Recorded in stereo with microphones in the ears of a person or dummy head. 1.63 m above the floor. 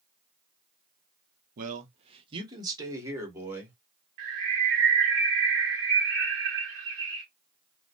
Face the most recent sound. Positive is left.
turn(degrees=-35)  # may be behind; listen again after turning